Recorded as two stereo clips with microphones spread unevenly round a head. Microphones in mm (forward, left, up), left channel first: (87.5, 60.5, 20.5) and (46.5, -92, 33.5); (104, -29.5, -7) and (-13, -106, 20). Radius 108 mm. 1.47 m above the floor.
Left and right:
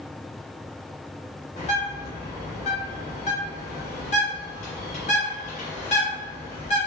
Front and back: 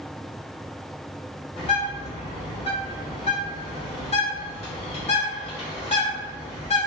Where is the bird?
65° left, 0.9 m.